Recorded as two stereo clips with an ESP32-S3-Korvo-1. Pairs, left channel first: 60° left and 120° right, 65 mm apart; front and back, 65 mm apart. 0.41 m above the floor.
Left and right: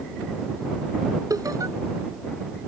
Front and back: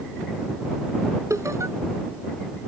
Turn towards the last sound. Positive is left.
turn(degrees=-145)